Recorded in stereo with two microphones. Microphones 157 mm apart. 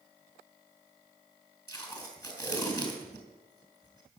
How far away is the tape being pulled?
About 4 m.